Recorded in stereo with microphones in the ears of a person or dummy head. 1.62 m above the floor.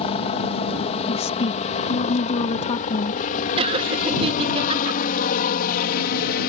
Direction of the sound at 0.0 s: 30° left (ahead or behind).